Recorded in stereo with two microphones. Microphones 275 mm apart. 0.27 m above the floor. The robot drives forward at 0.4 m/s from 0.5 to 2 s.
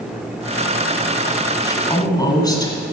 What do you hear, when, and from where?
1.6 s a woman speaking: 15° left (ahead or behind), 1.7 m